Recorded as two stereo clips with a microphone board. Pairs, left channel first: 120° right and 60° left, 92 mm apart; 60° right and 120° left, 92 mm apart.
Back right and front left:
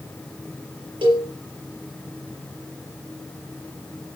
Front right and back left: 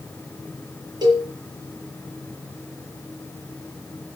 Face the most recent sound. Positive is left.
turn(degrees=80)